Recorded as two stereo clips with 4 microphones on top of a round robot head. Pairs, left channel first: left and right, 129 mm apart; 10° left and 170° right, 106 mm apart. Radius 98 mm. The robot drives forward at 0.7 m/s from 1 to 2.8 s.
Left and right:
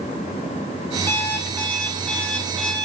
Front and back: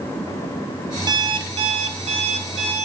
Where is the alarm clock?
160° left, 0.6 m; by 2.9 s 175° left, 1.6 m.